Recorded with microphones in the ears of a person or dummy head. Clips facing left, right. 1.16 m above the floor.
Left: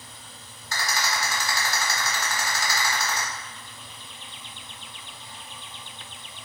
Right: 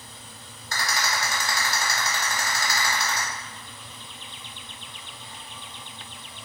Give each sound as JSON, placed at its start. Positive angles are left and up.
{"t": 0.7, "sound": "a rattle", "side_deg": -45, "distance_m": 1.7}